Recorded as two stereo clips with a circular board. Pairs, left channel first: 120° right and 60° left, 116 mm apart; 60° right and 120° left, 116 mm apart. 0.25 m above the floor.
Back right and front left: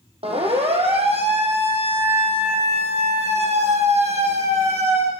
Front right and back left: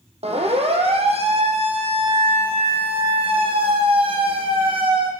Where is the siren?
90° left, 8 m; by 5.1 s 80° left, 10 m.